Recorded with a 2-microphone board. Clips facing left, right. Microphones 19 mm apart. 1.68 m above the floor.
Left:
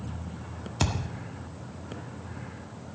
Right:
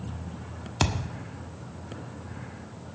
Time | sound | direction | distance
0.8 | a thud | 30° right (ahead or behind) | 1.4 m